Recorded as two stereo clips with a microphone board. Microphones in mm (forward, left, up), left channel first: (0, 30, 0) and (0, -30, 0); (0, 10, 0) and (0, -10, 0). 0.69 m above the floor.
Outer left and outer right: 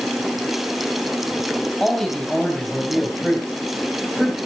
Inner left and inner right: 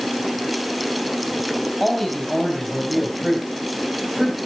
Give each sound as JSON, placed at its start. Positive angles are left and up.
{"t": 1.8, "sound": "a man speaking", "side_deg": 10, "distance_m": 3.5}